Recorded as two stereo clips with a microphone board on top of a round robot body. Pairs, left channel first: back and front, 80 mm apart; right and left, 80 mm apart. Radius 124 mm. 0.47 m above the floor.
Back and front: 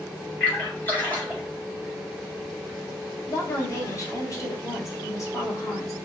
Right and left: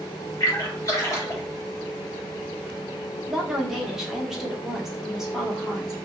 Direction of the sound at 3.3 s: 170° left.